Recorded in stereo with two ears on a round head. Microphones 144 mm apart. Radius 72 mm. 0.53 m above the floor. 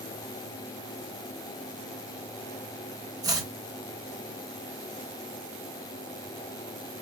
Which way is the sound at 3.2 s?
20° right (ahead or behind).